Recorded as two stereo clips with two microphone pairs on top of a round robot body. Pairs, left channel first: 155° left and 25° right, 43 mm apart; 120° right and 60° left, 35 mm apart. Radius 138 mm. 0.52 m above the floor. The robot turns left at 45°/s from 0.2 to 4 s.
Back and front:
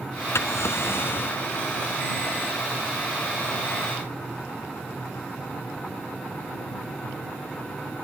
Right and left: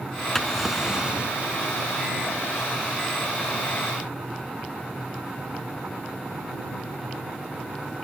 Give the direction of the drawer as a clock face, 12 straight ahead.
7 o'clock.